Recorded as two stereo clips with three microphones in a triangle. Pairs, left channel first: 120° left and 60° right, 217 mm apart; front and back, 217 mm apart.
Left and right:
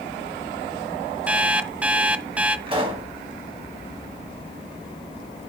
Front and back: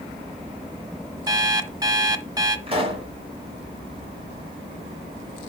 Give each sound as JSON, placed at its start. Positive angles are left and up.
{"t": 1.3, "sound": "an alarm clock", "azimuth_deg": -135, "distance_m": 0.6}
{"t": 2.7, "sound": "a pop", "azimuth_deg": -120, "distance_m": 2.5}